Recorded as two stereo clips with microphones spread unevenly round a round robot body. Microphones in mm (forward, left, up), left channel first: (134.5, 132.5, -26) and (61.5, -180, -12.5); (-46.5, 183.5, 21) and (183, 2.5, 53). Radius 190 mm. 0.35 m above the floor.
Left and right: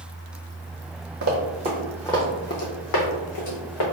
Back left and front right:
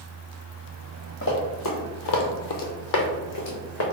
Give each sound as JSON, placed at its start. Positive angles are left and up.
{"t": 1.2, "sound": "running footsteps", "azimuth_deg": -155, "distance_m": 0.8}